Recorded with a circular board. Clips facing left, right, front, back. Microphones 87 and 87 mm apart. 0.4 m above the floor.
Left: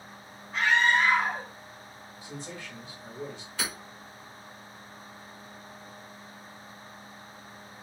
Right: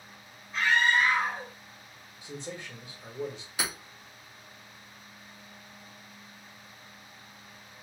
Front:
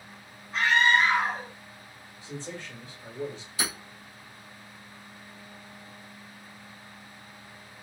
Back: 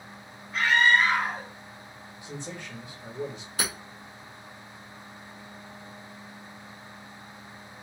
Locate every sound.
0.5 s a scream: 70° left, 2.5 m
2.2 s a man speaking: 135° right, 1.4 m
3.6 s hammering: 165° right, 1.7 m